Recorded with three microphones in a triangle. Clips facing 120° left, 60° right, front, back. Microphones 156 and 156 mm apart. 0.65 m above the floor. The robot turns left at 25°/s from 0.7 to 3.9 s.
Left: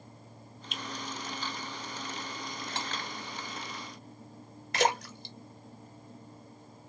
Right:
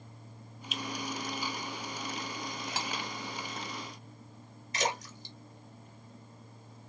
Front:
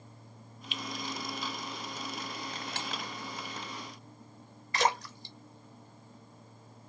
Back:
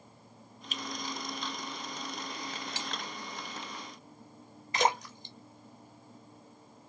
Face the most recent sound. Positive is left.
turn(degrees=110)